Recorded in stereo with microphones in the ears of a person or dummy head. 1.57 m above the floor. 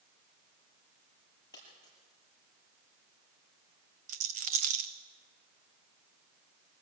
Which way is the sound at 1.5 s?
20° left (ahead or behind).